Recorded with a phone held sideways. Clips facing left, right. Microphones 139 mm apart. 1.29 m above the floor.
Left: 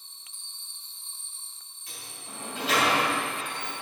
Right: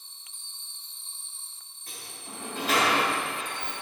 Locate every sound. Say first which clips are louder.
1.9 s a sliding door: right 1 dB; 50° right (ahead or behind), 1.8 m